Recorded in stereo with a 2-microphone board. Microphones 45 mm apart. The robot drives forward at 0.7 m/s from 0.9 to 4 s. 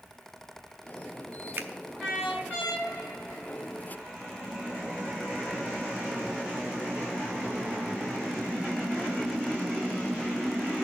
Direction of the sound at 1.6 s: 45° right (ahead or behind).